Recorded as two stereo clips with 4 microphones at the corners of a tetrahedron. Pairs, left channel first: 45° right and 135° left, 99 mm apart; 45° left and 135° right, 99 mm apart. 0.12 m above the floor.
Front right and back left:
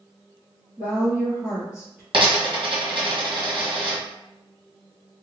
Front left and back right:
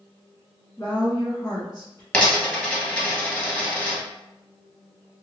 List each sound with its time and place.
0.8 s a woman speaking: 60° left, 1.7 m
2.1 s a dropped coin: 120° left, 1.3 m